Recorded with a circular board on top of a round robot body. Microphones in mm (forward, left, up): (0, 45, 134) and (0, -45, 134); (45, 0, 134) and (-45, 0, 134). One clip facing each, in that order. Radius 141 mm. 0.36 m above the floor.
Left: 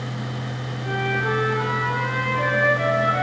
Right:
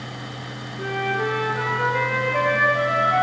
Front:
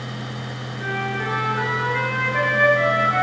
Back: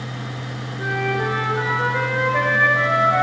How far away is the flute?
About 6.5 m.